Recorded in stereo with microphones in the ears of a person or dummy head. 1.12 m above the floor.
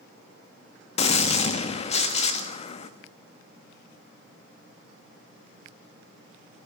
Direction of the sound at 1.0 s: 35° left (ahead or behind).